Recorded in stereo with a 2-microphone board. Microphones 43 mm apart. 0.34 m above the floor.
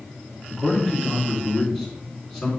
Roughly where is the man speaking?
Centre.